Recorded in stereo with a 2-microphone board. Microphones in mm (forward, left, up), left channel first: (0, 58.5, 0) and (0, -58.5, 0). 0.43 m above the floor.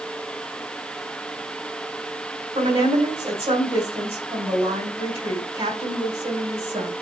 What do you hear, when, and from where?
2.5 s a woman speaking: 60° right (ahead or behind), 3 m